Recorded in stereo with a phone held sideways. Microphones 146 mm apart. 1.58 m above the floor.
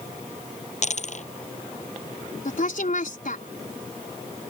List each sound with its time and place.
0.8 s a dropped coin: 55° left (ahead or behind)
2.5 s a woman speaking: 65° left (ahead or behind)